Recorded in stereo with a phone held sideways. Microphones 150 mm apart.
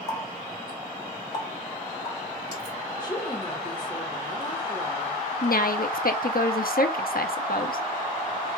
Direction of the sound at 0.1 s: 25° left (ahead or behind).